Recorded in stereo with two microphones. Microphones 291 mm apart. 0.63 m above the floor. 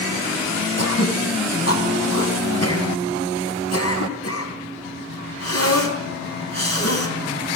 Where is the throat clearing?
55° left (ahead or behind), 3.5 m.